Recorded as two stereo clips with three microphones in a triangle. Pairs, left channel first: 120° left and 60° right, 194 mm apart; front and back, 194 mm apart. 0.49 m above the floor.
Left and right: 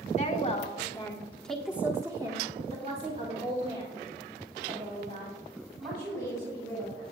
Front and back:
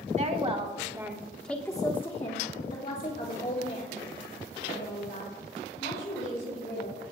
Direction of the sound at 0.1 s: 150° left.